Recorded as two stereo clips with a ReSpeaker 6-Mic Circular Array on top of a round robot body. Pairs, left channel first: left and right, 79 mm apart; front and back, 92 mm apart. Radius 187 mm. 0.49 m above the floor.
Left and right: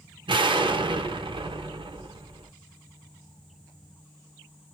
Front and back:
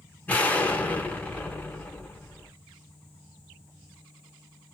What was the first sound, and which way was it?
An explosion, 75° right.